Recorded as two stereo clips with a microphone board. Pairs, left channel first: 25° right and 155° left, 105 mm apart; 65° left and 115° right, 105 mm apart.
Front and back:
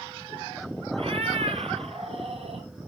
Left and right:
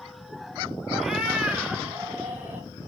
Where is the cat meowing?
160° left, 1.3 m; by 2.7 s 175° left, 3 m.